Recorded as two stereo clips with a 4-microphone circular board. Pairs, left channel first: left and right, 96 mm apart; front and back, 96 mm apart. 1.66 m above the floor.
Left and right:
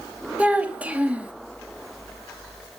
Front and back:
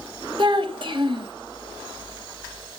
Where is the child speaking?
165° right, 1.7 m.